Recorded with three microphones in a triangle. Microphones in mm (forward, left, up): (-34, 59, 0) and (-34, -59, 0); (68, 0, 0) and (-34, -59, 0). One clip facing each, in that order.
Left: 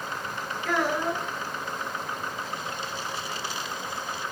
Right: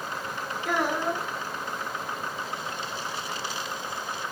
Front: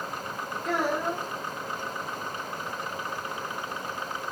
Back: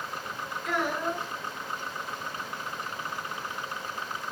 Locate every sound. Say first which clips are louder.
0.7 s a child speaking: even, front 2 dB; 20° right, 1.2 m